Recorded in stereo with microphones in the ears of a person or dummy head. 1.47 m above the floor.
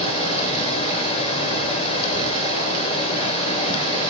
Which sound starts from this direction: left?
Running water, at 0.0 s.